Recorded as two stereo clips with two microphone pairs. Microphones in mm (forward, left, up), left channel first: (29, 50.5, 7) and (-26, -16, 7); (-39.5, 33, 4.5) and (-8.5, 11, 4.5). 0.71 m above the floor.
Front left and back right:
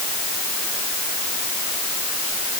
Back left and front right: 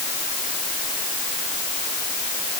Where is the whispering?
No whispering in this recording.